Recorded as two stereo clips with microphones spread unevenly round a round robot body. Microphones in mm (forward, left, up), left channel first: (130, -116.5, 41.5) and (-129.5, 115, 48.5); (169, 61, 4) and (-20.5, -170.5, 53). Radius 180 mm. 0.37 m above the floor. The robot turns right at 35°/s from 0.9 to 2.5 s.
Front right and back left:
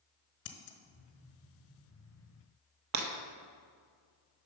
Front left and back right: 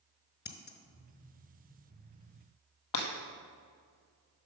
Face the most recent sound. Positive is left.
turn(degrees=95)